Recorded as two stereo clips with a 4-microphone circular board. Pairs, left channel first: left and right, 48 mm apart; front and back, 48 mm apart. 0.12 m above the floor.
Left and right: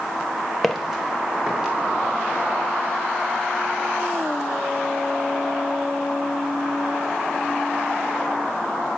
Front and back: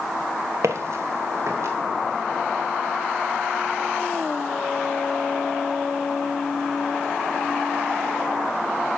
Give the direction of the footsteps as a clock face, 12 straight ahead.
6 o'clock.